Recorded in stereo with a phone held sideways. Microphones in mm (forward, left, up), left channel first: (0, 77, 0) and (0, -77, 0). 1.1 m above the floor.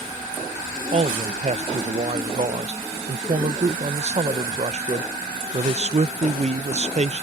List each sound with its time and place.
0.9 s a man speaking: 45° right (ahead or behind)